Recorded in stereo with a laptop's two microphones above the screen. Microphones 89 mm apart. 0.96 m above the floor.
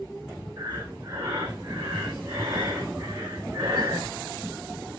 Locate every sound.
0.6 s breathing: 40° right (ahead or behind), 3 m